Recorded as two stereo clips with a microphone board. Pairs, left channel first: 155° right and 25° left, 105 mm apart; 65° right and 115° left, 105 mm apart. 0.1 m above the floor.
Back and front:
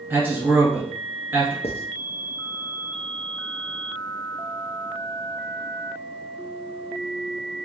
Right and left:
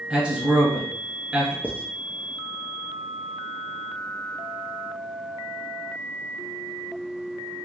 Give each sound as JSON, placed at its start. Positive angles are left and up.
{"t": 0.1, "sound": "a man speaking", "azimuth_deg": 50, "distance_m": 1.2}
{"t": 1.6, "sound": "writing", "azimuth_deg": -175, "distance_m": 0.8}